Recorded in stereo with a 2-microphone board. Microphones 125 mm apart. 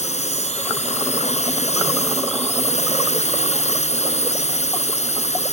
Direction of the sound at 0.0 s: 65° left (ahead or behind).